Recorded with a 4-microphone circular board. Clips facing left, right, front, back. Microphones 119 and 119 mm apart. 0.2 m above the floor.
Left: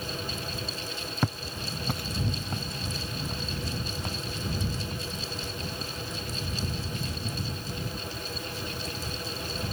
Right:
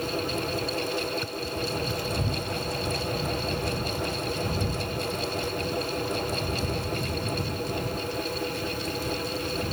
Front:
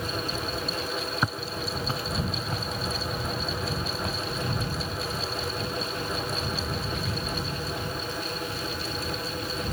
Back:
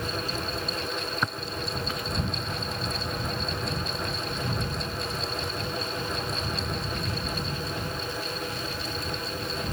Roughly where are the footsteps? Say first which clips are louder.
Right 2 dB, front 1 dB; left.